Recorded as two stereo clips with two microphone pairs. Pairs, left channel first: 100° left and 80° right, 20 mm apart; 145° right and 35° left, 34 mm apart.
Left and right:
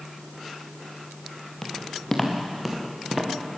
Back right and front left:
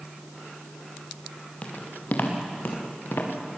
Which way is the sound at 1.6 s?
165° left.